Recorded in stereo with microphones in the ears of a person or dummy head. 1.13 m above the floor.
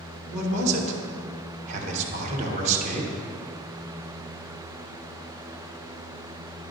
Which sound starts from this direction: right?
A man speaking, at 0.3 s.